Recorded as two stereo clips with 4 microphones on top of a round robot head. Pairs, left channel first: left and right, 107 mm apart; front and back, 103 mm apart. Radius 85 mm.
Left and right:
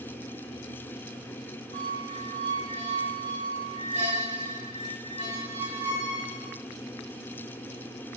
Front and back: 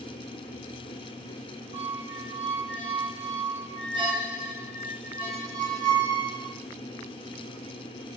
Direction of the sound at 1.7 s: 120° right.